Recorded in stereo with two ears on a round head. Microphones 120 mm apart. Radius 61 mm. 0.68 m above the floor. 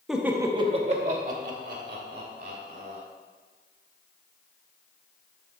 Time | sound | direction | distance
0.1 | laughter | 5° right (ahead or behind) | 0.9 m